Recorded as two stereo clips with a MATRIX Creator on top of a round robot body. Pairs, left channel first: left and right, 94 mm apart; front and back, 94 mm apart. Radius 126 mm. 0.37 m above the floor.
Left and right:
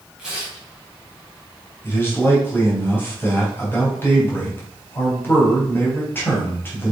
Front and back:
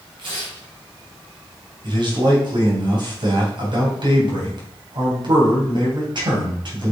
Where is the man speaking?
155° left, 3.5 m.